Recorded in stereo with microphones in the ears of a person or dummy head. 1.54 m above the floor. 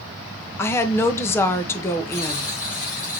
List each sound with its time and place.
0.6 s a woman speaking: 15° left (ahead or behind), 0.6 m
2.1 s a buzzer: 45° left (ahead or behind), 2.5 m